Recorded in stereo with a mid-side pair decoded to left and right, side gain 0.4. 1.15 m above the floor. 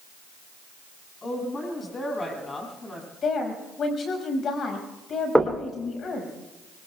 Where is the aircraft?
I don't hear an aircraft.